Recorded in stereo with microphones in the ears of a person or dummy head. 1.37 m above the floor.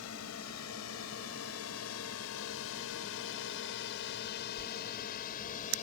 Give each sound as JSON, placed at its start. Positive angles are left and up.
{"t": 0.0, "sound": "a drone", "side_deg": 70}